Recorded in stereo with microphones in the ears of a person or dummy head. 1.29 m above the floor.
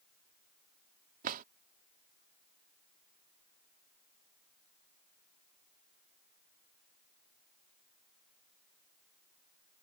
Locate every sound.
1.2 s a drawer: 45° right (ahead or behind)